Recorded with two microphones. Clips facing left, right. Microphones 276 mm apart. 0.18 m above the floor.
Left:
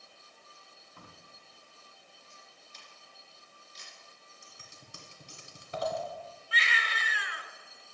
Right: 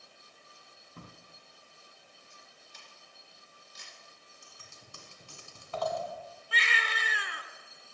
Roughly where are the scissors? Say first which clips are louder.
Left 1 dB; left.